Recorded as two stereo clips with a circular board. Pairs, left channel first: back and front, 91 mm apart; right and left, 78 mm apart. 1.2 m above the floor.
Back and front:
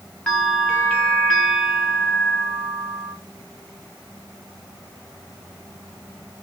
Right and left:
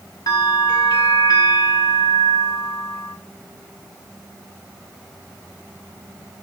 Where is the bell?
105° right, 1.0 m.